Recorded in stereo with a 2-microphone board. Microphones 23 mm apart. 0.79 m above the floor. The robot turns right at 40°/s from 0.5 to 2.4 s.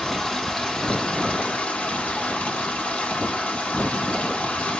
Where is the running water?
30° left, 1.4 m; by 4.8 s 105° left, 1.4 m.